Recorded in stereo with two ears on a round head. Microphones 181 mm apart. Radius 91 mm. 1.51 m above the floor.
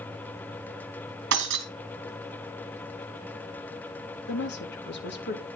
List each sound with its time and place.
1.3 s breaking glass: 55° right (ahead or behind), 2.5 m
4.3 s a woman speaking: 55° left (ahead or behind), 2.5 m